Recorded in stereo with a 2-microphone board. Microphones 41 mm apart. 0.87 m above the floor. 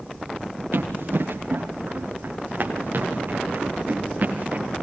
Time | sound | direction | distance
0.7 | running footsteps | 80° right | 7.5 m